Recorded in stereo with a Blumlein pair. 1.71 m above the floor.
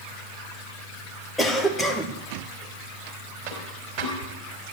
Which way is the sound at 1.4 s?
5° left.